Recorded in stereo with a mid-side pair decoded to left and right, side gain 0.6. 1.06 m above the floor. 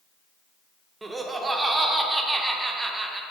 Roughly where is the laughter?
Ahead.